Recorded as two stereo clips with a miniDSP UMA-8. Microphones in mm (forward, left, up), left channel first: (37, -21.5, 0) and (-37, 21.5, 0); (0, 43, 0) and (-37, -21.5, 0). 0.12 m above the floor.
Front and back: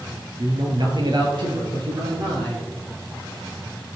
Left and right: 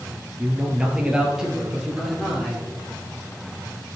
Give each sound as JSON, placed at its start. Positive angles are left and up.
{"t": 0.4, "sound": "a man speaking", "azimuth_deg": 175, "distance_m": 1.8}